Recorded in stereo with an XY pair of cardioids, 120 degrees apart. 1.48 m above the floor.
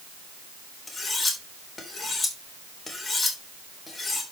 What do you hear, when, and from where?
0.9 s cutlery clinking: 20° left, 3.5 m